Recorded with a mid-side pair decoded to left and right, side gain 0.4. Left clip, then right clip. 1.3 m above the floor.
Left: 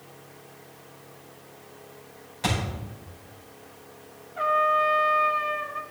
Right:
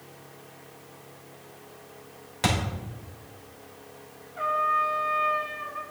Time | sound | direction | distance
2.4 | a thud | 65° right | 2.5 m
4.4 | a trumpet | 35° left | 1.3 m